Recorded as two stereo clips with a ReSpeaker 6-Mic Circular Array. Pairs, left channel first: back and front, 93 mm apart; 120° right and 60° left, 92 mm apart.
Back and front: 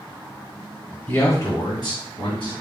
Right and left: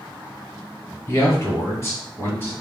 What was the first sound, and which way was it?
A man speaking, 130° right.